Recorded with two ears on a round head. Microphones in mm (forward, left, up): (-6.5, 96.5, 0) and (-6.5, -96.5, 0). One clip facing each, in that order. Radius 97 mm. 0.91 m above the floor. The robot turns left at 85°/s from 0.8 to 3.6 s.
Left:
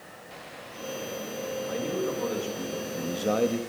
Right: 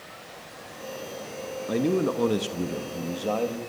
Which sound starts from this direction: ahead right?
A man speaking, at 1.7 s.